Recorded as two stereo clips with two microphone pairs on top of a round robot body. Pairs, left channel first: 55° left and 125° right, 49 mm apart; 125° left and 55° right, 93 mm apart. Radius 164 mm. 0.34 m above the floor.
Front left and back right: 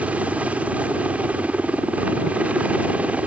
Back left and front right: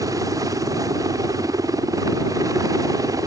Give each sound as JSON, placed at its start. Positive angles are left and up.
{"t": 0.0, "sound": "a helicopter", "azimuth_deg": -85}